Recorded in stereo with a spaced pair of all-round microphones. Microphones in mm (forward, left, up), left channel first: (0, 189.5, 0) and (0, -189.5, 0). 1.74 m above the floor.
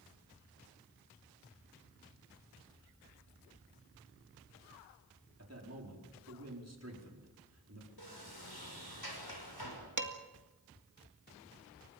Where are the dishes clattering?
50° right (ahead or behind), 2 m.